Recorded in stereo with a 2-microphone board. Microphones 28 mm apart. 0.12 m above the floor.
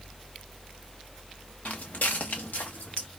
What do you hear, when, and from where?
1.6 s footsteps: 60° left (ahead or behind), 0.7 m; by 3.1 s 85° left, 1.9 m